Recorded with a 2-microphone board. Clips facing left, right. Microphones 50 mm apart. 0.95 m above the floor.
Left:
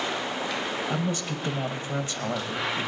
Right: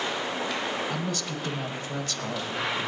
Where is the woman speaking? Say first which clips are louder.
Left 2 dB; 15° left (ahead or behind), 1.0 m.